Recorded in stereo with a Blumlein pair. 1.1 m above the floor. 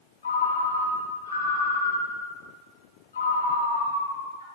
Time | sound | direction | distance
0.2 | a ringtone | 70° left | 0.9 m